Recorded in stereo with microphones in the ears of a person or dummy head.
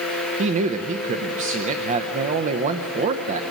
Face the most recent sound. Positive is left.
turn(degrees=-40)  # may be behind; listen again after turning